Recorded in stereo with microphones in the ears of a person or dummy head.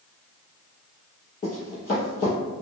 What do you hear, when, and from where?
1.4 s running footsteps: 30° left (ahead or behind), 1.4 m